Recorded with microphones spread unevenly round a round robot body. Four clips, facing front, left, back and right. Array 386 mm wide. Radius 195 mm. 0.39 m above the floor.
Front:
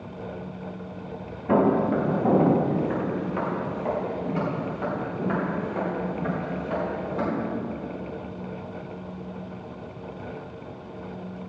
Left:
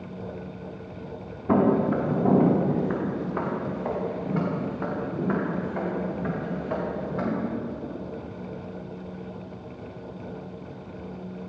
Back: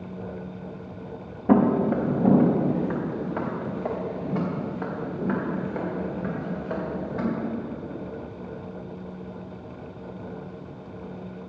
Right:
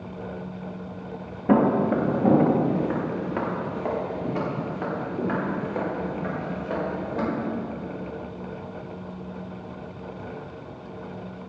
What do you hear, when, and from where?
1.5 s footsteps: 115° right, 4 m; by 7.2 s 100° right, 9 m